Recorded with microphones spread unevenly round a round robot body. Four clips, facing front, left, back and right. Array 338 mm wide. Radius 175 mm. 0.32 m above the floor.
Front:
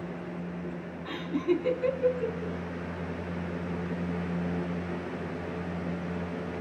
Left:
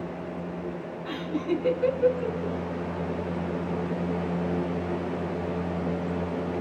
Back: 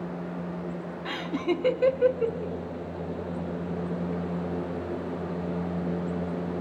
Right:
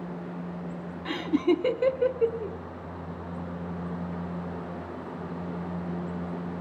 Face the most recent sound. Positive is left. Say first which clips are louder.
# right 5 dB, even
turn(degrees=-105)